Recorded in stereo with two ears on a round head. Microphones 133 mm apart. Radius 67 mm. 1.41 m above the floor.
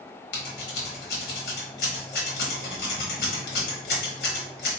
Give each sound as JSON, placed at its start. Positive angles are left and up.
{"t": 0.3, "sound": "scissors", "side_deg": 75, "distance_m": 1.2}